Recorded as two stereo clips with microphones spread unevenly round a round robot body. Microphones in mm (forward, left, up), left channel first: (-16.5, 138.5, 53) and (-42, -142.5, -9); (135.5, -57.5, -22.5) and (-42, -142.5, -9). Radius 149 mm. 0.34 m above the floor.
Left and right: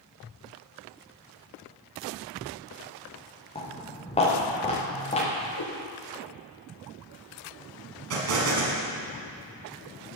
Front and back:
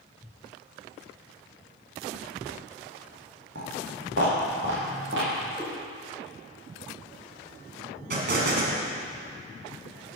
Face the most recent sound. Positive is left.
turn(degrees=-125)